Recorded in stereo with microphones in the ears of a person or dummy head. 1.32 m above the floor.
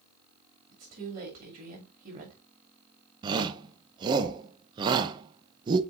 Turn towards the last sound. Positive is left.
turn(degrees=-25)  # may be behind; listen again after turning